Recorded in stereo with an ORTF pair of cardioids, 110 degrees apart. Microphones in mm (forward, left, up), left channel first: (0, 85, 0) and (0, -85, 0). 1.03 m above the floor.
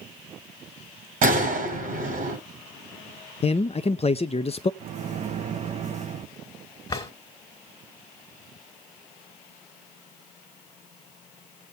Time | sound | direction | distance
1.2 | a gunshot | 60° right | 2.5 m
3.4 | a man speaking | 35° left | 0.5 m
4.8 | a microwave | 45° right | 1.2 m
6.9 | a drawer | 25° left | 2 m